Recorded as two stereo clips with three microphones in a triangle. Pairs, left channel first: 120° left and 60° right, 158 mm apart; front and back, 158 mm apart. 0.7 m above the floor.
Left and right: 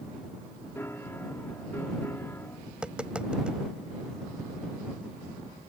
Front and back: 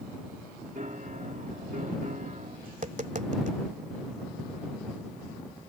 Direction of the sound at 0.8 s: 170° right.